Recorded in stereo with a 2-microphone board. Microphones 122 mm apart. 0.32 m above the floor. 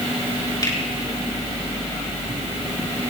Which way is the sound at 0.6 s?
35° left (ahead or behind).